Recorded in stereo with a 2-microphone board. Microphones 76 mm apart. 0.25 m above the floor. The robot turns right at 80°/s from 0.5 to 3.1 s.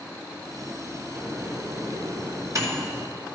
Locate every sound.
1.1 s a microwave: 15° right (ahead or behind), 2.5 m; by 3.1 s 5° right (ahead or behind), 2.5 m